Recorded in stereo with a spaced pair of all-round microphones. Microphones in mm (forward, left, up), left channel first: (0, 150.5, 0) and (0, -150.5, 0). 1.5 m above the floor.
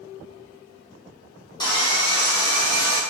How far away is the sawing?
About 1.0 m.